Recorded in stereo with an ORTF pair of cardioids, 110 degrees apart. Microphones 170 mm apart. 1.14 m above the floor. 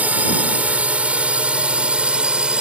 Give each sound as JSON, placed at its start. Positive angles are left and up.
{"t": 0.0, "sound": "a drone", "azimuth_deg": -10}